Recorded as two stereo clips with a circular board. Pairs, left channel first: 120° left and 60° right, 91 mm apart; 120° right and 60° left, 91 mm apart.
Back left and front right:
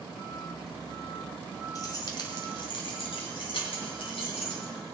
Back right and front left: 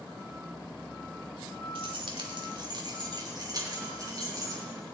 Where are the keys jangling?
75° left, 1.4 m; by 4.6 s 110° left, 4 m.